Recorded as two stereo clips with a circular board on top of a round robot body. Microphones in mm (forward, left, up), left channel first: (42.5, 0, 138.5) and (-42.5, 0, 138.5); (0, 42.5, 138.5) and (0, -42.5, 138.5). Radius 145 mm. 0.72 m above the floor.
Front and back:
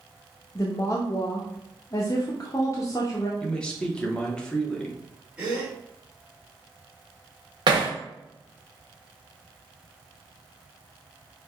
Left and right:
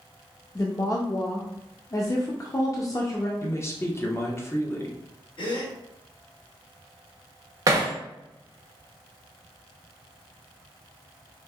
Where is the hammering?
140° right, 0.6 m.